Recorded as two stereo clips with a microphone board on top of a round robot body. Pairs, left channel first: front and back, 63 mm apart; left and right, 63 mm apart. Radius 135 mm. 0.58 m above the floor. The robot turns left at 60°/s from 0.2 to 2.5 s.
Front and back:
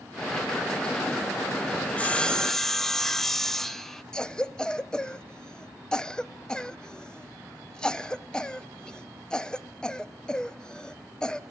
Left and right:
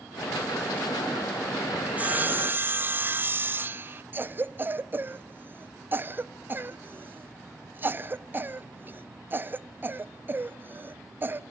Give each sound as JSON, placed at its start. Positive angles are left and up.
{"t": 1.9, "sound": "sawing", "azimuth_deg": -40, "distance_m": 0.8}
{"t": 4.1, "sound": "a cough", "azimuth_deg": -65, "distance_m": 0.8}